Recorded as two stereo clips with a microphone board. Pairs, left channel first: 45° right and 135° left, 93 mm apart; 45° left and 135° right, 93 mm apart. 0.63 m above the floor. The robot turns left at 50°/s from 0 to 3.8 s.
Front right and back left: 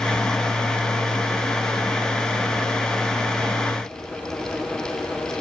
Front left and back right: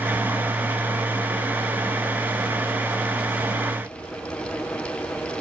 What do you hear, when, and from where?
Only background noise.